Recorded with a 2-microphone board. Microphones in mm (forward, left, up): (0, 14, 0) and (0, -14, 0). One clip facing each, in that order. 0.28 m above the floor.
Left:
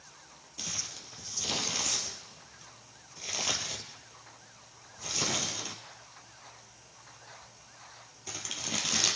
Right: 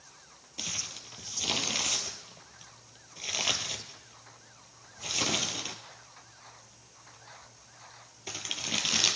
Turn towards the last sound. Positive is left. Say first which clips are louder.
# right 2 dB
turn(degrees=-30)  # may be behind; listen again after turning